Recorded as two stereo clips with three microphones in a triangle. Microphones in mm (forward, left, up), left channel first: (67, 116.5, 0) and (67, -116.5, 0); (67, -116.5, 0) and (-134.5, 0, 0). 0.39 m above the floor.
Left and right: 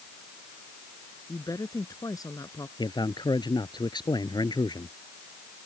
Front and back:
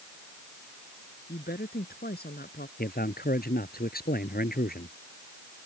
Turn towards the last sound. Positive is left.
turn(degrees=20)